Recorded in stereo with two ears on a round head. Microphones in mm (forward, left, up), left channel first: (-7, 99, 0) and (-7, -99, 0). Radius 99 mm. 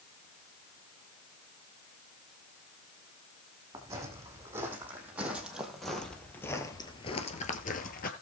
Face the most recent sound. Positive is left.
turn(degrees=40)  # may be behind; listen again after turning